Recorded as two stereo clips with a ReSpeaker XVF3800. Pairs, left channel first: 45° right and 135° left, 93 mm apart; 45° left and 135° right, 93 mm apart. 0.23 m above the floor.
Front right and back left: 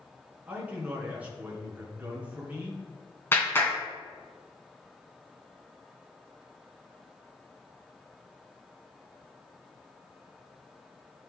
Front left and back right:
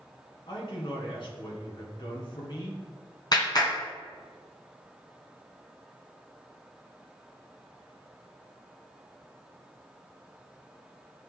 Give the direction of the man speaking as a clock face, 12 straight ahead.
10 o'clock.